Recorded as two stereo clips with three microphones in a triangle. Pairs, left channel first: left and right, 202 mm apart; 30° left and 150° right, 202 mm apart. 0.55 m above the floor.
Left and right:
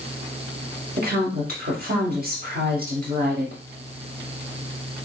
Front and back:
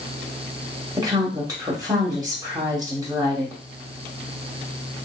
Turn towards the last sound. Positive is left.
turn(degrees=-85)